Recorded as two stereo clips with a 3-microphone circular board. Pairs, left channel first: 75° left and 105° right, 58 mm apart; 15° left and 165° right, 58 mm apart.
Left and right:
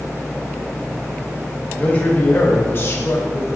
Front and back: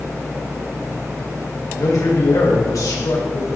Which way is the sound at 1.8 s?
10° left.